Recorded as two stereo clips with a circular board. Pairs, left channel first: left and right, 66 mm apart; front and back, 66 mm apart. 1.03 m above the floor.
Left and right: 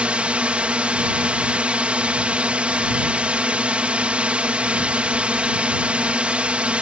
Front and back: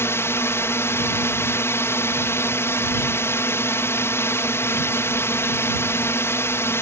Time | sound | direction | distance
0.0 | a drone | 25° right | ?